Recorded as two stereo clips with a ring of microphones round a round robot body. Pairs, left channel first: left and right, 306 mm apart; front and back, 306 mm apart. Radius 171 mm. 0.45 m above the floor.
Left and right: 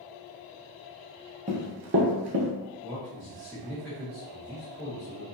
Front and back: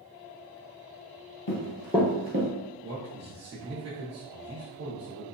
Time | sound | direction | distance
1.5 | running footsteps | 25° right | 0.7 m
2.8 | a man speaking | straight behind | 0.8 m